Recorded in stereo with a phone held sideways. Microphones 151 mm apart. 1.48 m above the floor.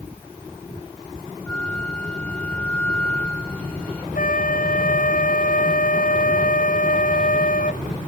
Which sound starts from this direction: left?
A flute, at 4.2 s.